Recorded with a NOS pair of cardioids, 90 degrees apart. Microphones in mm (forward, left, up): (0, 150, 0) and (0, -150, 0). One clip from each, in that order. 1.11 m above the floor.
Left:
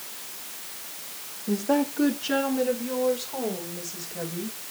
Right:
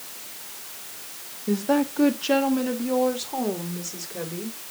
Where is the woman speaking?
20° right, 1.9 m; by 4.6 s 75° right, 5.5 m.